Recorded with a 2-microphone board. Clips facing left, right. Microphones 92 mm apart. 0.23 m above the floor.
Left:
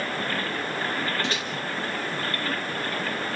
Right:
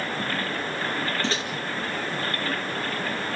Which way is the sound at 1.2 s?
30° right (ahead or behind).